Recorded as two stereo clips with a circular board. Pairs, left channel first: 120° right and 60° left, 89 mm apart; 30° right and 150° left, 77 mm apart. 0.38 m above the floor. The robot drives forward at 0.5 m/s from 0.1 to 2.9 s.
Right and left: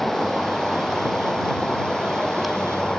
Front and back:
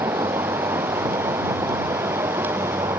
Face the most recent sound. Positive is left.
turn(degrees=160)